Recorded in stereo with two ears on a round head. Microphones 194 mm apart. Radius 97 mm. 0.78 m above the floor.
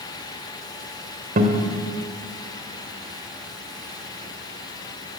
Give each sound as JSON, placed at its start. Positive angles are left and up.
{"t": 1.4, "sound": "a guitar", "side_deg": -40, "distance_m": 2.5}